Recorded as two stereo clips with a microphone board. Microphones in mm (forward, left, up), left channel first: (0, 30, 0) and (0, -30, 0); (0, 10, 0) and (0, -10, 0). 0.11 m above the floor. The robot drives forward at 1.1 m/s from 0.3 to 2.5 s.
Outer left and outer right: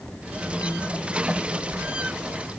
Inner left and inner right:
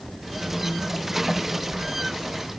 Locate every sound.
Only background noise.